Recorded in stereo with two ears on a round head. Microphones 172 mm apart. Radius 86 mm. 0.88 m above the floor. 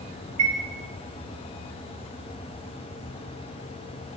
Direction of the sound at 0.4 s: 75° right (ahead or behind).